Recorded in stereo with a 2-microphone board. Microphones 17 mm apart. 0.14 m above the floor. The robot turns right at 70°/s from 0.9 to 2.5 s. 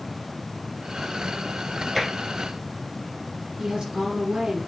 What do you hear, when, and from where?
1.9 s tapping: centre (ahead or behind), 3.5 m; by 2.1 s 10° right (ahead or behind), 3.5 m
3.6 s a woman speaking: 55° right (ahead or behind), 3 m